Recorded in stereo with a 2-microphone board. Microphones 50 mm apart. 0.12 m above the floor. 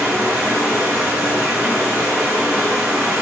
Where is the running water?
10° right (ahead or behind), 4 m.